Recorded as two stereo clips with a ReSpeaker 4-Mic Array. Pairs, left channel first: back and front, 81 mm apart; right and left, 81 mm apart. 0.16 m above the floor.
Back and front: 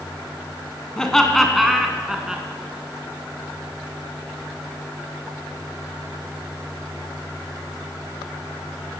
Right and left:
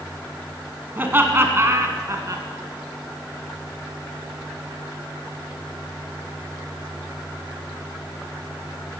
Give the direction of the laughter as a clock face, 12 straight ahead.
8 o'clock.